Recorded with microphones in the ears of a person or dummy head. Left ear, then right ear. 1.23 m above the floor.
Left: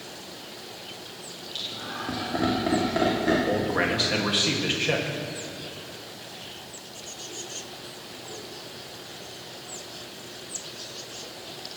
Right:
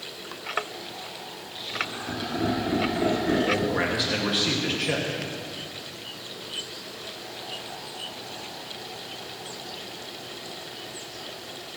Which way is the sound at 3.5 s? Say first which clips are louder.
Even; 15° left (ahead or behind).